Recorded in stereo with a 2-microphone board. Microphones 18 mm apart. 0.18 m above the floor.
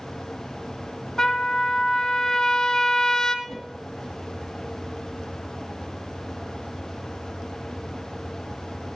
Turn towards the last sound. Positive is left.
turn(degrees=25)  # may be behind; listen again after turning